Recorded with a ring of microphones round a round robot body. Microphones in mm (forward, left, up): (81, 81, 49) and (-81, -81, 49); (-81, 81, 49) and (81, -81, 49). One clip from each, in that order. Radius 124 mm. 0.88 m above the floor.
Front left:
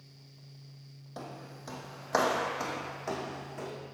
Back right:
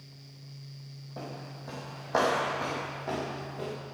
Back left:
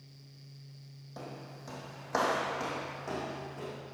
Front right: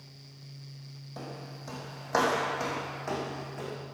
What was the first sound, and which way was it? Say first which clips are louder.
Footsteps: back right 2 dB, front right 3 dB; 45° left.